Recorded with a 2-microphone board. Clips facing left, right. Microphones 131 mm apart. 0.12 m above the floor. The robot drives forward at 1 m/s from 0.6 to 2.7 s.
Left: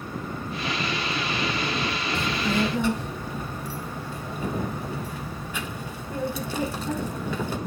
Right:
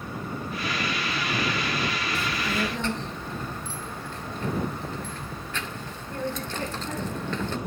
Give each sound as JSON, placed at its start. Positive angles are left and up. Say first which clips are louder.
{"t": 2.1, "sound": "a child speaking", "louder": "left 6 dB", "side_deg": 15, "distance_m": 0.7}